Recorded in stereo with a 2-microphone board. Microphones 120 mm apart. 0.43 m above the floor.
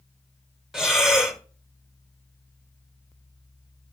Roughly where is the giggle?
No giggle in this recording.